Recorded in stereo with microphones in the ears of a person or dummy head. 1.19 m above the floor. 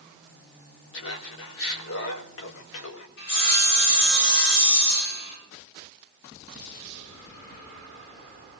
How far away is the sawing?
About 6.5 m.